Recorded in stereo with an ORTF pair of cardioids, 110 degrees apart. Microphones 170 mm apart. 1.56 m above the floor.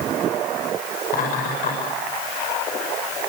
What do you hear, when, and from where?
1.1 s laughter: 60° left, 6 m